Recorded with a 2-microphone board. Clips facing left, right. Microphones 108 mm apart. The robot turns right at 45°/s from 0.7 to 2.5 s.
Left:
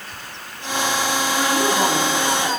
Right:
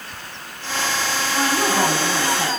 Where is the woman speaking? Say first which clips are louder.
Right 1 dB; 145° right, 4 m; by 2.5 s 90° right, 4 m.